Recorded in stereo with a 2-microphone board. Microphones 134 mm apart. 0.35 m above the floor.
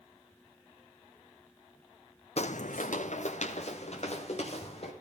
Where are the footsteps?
50° left (ahead or behind), 0.6 m.